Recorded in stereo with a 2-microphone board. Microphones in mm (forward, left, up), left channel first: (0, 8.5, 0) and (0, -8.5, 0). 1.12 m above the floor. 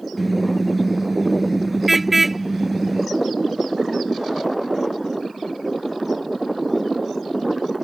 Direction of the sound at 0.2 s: Centre (ahead or behind).